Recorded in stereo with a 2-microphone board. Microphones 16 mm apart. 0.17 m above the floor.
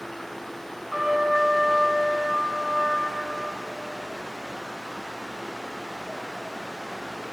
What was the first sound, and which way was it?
A trumpet, 20° right (ahead or behind).